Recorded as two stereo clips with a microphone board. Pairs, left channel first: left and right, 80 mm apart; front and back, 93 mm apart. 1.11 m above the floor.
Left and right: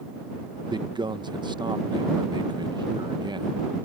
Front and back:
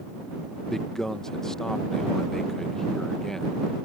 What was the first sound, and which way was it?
A man speaking, 85° right.